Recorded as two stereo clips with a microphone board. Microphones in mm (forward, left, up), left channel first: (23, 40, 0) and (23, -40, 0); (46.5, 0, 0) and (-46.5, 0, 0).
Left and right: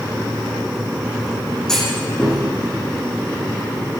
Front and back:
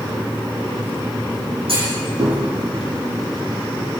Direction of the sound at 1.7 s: 175° left.